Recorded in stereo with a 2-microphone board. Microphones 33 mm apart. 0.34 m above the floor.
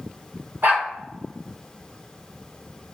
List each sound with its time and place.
0.6 s a dog barking: 70° right (ahead or behind), 1.3 m